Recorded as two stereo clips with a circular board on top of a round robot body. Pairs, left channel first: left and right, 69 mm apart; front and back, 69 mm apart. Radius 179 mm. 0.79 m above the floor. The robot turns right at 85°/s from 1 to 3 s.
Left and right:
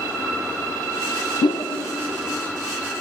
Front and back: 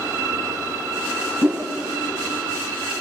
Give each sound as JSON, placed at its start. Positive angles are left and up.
{"t": 1.4, "sound": "a whoosh", "azimuth_deg": 105, "distance_m": 0.6}